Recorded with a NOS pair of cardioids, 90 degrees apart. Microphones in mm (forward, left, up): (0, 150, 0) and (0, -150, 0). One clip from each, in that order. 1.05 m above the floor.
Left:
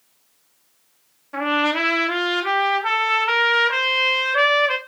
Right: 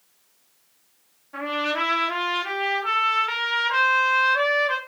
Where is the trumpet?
45° left, 3 m.